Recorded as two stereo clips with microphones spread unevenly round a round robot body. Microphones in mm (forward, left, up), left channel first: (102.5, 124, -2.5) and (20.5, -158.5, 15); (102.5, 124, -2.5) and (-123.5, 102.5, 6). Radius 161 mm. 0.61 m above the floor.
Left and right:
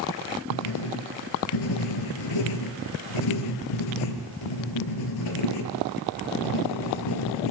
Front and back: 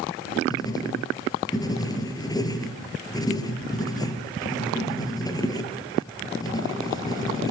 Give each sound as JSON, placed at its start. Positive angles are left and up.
{"t": 0.5, "sound": "writing", "azimuth_deg": 80, "distance_m": 4.5}